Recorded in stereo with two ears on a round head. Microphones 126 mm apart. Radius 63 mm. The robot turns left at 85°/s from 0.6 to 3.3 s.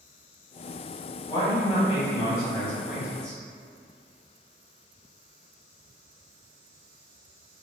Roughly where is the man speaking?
Behind left.